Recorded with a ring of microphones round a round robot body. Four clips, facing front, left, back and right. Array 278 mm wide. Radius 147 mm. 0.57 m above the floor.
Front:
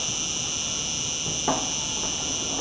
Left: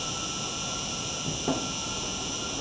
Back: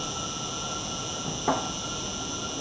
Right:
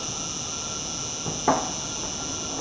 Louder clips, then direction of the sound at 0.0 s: Even, back 2 dB; 5° right.